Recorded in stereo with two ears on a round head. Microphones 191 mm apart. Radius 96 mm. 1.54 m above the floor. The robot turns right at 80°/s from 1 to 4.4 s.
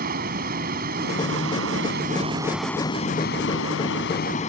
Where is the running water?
130° right; by 4.5 s 140° left.